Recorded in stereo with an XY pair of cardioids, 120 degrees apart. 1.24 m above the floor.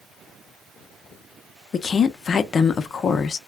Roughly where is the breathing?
I don't hear breathing.